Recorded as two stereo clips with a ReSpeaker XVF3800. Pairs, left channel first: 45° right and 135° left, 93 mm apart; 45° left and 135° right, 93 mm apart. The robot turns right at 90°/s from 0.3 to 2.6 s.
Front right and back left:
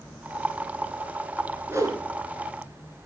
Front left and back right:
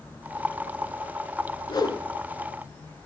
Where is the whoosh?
70° left, 2 m; by 2.0 s 105° left, 2 m.